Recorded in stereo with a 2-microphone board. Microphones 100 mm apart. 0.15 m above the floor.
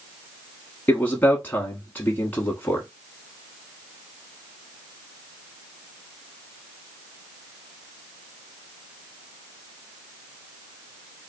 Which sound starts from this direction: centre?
A man speaking, at 0.9 s.